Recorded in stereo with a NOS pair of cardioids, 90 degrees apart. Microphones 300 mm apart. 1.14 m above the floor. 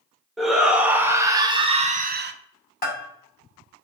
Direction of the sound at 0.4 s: Straight ahead.